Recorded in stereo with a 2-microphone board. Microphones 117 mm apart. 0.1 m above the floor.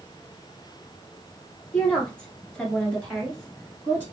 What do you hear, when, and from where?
1.7 s a woman speaking: 10° left (ahead or behind), 2 m; by 4.0 s 5° left (ahead or behind), 1.5 m